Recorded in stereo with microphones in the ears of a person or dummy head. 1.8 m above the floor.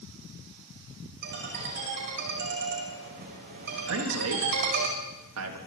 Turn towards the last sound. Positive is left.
turn(degrees=-85)